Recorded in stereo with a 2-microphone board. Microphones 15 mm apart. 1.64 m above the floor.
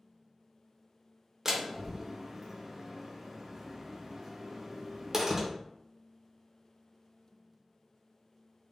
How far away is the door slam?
About 0.8 m.